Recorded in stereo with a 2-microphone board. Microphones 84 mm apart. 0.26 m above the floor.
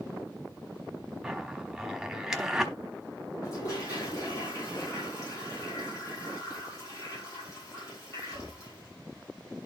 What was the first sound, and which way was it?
A zipper, 5° right (ahead or behind).